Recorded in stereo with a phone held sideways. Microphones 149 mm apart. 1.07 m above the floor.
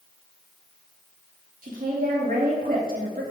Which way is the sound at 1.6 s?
75° right (ahead or behind).